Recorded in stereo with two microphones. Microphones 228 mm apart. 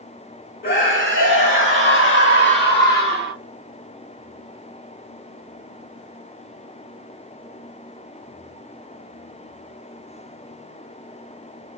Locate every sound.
0.6 s a scream: 60° left (ahead or behind), 3 m; by 3.3 s 40° left (ahead or behind), 2.5 m